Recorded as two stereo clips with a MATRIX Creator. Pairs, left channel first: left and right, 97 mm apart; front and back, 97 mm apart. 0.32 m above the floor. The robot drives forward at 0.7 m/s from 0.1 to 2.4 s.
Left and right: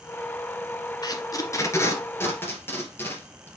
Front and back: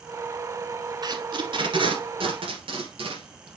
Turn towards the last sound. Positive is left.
turn(degrees=155)